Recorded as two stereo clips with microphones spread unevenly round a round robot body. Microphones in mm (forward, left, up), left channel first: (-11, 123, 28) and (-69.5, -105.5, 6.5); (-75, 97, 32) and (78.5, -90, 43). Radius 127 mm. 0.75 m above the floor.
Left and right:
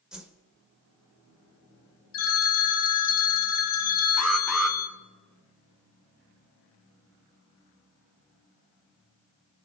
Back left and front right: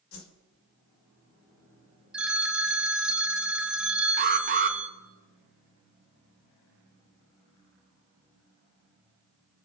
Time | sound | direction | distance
0.1 | a whoosh | 170° left | 1.3 m
2.1 | a phone ringing | 35° left | 0.9 m
4.2 | an alarm | 20° right | 1.0 m